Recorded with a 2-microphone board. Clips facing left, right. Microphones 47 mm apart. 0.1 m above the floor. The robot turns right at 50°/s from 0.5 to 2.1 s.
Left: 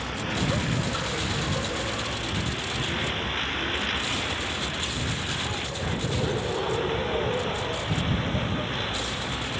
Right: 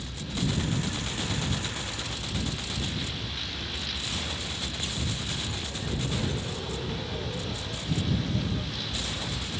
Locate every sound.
0.0 s a vehicle: 55° left (ahead or behind); by 9.6 s 35° left (ahead or behind)